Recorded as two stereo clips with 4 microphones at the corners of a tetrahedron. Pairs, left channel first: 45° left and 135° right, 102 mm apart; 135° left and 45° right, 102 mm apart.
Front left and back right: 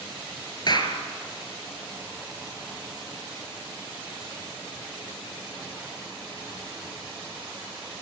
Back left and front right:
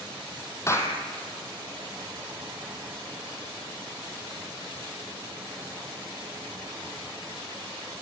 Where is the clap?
80° left, 3 m.